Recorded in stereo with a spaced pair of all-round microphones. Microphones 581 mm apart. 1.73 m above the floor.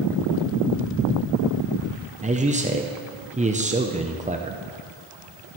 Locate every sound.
2.2 s a man speaking: 15° right (ahead or behind), 0.7 m